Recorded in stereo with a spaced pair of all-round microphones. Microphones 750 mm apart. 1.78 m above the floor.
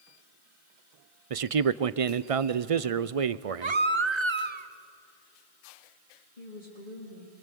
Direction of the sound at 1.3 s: 50° right (ahead or behind).